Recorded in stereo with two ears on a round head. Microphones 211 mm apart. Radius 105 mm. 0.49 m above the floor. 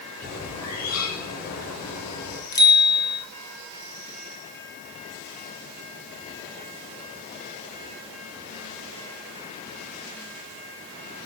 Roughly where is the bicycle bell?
Centre.